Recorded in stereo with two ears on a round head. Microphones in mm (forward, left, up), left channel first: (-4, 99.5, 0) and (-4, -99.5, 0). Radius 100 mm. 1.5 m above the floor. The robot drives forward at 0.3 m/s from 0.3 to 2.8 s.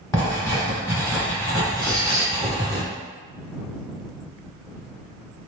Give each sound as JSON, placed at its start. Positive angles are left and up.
{"t": 0.1, "sound": "writing", "side_deg": 15, "distance_m": 1.7}
{"t": 1.8, "sound": "a squeak", "side_deg": 5, "distance_m": 1.6}